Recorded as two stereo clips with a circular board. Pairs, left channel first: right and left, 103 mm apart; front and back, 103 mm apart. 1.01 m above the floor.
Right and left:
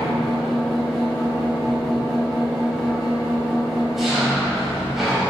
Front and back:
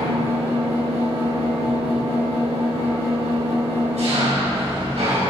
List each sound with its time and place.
0.0 s an engine running: straight behind, 5.5 m